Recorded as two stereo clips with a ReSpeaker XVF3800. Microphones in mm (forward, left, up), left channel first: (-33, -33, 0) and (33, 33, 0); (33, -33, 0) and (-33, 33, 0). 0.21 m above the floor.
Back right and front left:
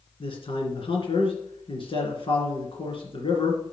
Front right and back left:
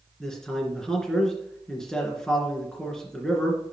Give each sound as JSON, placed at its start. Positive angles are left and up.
{"t": 0.2, "sound": "a man speaking", "azimuth_deg": -130, "distance_m": 2.5}